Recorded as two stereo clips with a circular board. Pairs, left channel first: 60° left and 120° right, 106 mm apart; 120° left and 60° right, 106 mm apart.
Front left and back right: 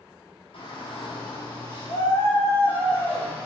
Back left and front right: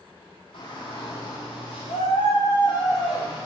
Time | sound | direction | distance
0.5 | a shout | 85° left | 1.7 m